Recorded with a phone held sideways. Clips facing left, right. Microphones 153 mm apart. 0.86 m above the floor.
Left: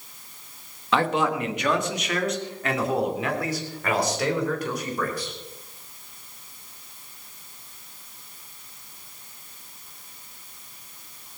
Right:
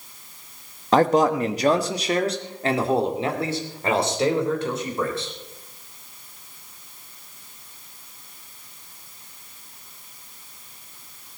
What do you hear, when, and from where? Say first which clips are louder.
0.9 s a man speaking: right 6 dB; 40° right (ahead or behind), 1.3 m; by 5.3 s 25° right (ahead or behind), 4.5 m